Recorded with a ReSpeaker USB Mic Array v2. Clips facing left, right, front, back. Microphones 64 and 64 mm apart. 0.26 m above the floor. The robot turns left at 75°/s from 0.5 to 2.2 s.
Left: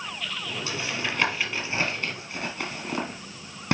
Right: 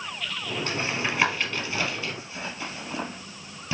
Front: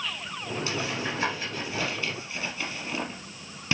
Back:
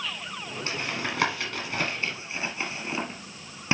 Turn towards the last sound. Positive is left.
turn(degrees=115)